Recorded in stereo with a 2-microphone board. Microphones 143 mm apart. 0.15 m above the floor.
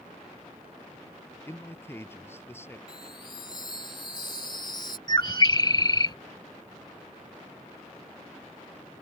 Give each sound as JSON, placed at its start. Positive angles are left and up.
{"t": 1.5, "sound": "a man speaking", "side_deg": 15}
{"t": 2.9, "sound": "a chime", "side_deg": 35}
{"t": 5.1, "sound": "a bird", "side_deg": 30}